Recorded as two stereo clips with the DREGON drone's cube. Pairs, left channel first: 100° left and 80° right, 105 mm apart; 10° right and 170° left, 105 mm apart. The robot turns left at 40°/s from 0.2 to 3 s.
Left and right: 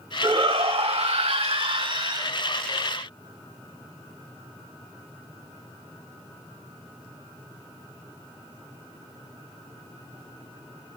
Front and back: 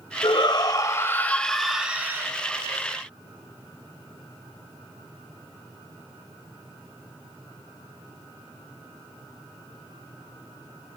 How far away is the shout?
About 2.5 m.